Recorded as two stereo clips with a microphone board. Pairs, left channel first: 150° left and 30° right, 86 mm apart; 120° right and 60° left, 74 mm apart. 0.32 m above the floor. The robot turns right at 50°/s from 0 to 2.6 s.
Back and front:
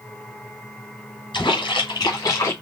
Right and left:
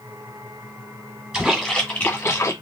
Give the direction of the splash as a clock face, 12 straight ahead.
7 o'clock.